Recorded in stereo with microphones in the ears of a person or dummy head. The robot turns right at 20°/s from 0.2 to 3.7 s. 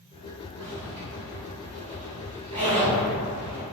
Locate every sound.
0.6 s a zipper: 30° right (ahead or behind), 1.1 m; by 3.6 s 15° right (ahead or behind), 1.1 m